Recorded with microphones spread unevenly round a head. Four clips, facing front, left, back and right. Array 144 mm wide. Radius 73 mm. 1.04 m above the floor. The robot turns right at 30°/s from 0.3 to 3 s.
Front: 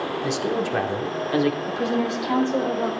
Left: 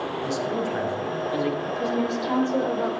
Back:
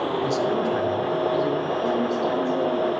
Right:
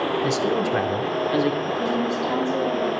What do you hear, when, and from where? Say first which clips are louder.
0.2 s a man speaking: right 4 dB, back 1 dB; 55° right, 2.5 m; by 1.6 s 20° right, 2.5 m
1.7 s a woman speaking: right 2 dB, back 1 dB; straight ahead, 3.5 m; by 2.9 s 40° left, 3.5 m